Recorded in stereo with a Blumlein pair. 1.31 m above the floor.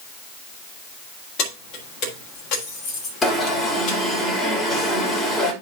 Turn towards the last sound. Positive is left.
turn(degrees=15)